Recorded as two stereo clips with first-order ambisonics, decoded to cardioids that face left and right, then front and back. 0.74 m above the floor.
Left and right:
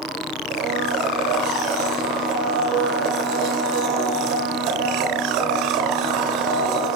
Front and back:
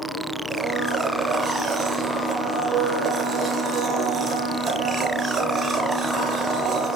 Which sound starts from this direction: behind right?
A blender, at 0.5 s.